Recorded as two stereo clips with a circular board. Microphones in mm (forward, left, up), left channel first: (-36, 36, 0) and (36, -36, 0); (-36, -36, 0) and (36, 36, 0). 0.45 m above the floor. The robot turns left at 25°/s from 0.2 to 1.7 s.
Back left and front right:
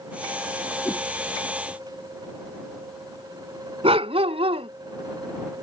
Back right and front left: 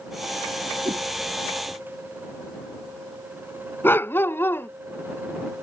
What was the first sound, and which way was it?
A whoosh, 65° left.